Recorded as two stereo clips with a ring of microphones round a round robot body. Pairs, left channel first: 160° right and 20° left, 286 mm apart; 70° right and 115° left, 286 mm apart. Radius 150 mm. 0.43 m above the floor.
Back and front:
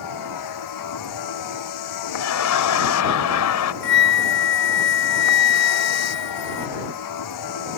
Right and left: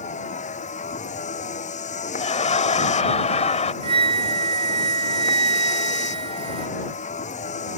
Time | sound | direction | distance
0.0 | a vehicle | 135° right | ?
2.2 | laughter | 135° right | ?
3.8 | a flute | 175° left | ?